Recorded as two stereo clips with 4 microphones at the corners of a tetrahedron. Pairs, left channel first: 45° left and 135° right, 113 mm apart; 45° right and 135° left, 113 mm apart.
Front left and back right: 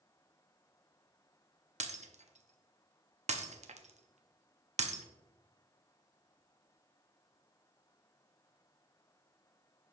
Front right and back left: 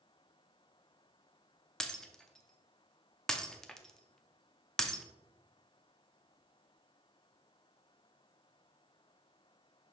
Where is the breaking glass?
130° right, 0.5 m.